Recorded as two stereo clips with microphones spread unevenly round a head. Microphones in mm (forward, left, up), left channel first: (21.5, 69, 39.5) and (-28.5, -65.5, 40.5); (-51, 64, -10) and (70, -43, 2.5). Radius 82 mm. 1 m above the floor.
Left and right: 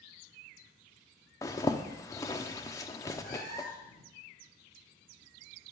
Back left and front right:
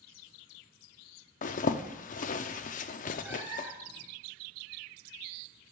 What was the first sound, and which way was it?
A zipper, 130° left.